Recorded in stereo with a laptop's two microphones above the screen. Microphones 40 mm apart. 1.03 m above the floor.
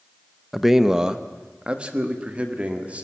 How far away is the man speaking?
About 0.6 m.